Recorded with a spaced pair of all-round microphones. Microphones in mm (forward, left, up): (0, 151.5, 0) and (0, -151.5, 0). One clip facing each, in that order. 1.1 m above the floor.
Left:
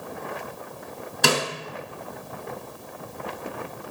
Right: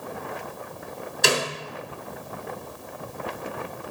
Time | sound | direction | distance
1.2 | a snare drum | 65° left (ahead or behind) | 2.5 m